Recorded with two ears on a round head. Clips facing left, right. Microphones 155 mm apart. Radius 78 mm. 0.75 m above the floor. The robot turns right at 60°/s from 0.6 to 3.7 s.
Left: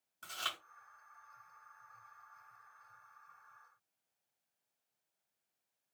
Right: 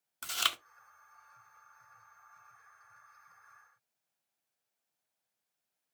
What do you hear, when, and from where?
0.2 s chewing: 75° right (ahead or behind), 0.6 m